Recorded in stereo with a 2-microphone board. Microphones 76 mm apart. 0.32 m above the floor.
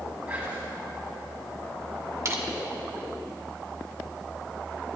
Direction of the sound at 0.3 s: 20° right (ahead or behind).